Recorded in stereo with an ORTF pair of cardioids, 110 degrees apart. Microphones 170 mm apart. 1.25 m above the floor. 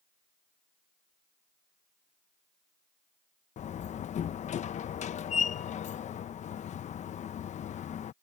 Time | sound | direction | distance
3.6 | a door slam | 45° left | ?